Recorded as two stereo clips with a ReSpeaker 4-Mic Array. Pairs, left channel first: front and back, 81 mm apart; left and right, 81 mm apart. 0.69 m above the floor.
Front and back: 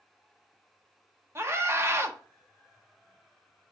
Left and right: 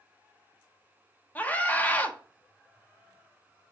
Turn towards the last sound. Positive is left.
turn(degrees=145)